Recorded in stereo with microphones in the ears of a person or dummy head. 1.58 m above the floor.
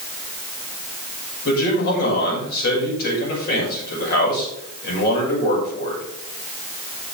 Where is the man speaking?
60° left (ahead or behind), 6 m.